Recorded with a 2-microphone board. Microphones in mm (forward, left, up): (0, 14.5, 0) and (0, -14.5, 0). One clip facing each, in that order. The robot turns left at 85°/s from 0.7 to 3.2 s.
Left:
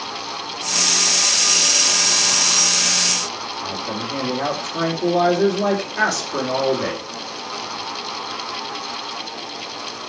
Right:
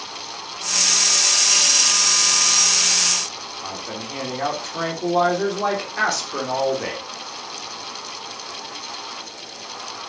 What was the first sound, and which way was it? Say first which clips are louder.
A man speaking: left 4 dB; 5° right (ahead or behind).